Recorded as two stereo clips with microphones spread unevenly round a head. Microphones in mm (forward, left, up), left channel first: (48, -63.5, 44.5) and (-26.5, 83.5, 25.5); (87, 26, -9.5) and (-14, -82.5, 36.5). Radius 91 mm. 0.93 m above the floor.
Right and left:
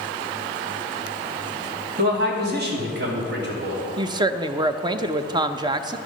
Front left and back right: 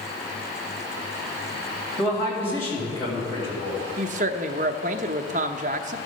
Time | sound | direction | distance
2.0 | a man speaking | 120° left | 2.5 m
4.0 | a woman speaking | 175° left | 0.6 m